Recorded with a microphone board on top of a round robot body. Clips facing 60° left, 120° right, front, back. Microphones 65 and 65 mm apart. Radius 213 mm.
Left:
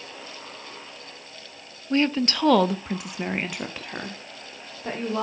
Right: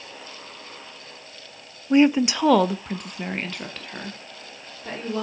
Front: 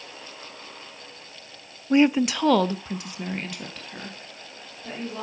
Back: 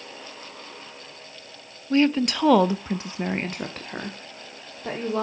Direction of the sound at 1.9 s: 55° right.